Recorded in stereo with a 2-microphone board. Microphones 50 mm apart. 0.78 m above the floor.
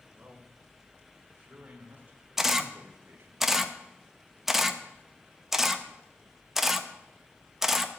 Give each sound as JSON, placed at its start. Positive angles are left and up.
{"t": 0.1, "sound": "a man speaking", "side_deg": -30, "distance_m": 3.5}
{"t": 2.4, "sound": "a camera shutter", "side_deg": -5, "distance_m": 0.8}